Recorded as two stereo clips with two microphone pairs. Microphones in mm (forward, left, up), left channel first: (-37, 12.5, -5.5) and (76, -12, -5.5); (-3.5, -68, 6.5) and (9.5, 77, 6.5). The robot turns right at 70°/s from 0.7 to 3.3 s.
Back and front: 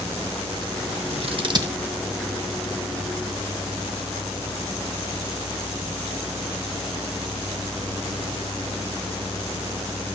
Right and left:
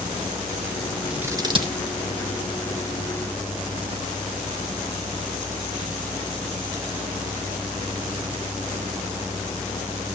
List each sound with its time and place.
1.1 s scissors: straight ahead, 1.5 m; by 1.7 s 45° left, 1.5 m